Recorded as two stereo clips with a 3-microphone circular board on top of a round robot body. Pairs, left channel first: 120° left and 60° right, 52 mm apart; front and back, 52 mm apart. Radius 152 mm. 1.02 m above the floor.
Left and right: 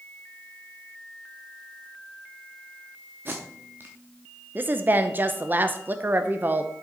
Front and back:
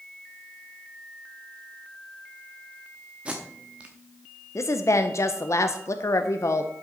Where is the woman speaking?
10° right, 0.7 m.